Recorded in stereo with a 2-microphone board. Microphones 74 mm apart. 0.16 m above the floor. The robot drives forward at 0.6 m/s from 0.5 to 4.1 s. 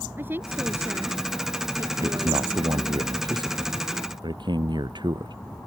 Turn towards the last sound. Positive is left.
turn(degrees=-75)  # may be behind; listen again after turning